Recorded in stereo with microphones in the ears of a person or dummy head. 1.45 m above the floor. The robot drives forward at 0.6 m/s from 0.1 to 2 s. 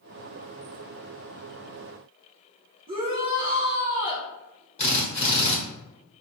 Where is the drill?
35° left (ahead or behind), 1.1 m.